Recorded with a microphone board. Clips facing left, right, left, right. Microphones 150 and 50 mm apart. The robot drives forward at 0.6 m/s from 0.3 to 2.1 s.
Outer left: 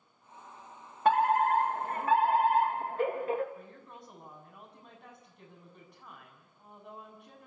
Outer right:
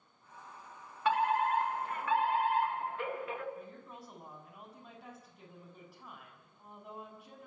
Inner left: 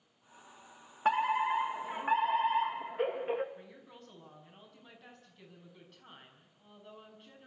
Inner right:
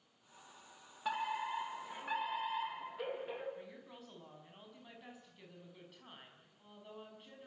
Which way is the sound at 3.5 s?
5° right (ahead or behind).